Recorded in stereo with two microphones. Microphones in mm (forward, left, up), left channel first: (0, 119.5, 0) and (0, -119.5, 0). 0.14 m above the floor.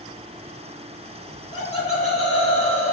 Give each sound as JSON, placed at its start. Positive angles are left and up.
{"t": 1.3, "sound": "laughter", "side_deg": 65, "distance_m": 2.5}